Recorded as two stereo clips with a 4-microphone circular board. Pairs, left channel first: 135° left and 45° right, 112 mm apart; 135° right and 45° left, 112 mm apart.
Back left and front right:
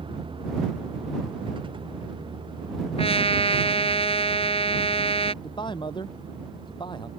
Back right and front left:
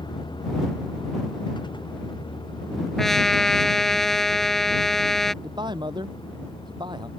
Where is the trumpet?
140° left.